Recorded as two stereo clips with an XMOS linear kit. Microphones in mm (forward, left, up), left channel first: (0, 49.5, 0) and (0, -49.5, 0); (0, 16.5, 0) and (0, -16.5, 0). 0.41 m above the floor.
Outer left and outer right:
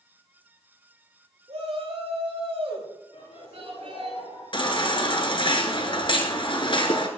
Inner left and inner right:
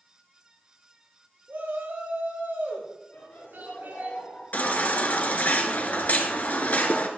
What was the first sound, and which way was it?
A shout, 80° right.